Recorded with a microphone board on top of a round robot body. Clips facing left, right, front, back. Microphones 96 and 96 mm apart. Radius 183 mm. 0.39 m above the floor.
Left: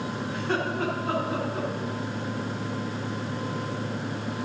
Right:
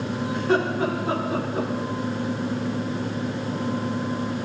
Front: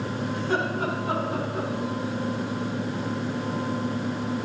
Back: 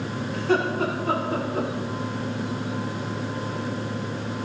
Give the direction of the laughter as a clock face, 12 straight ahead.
6 o'clock.